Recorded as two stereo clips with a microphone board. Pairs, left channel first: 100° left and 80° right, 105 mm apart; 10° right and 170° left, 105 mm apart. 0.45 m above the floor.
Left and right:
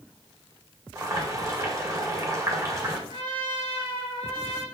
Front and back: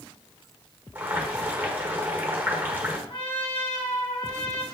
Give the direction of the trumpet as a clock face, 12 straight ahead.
1 o'clock.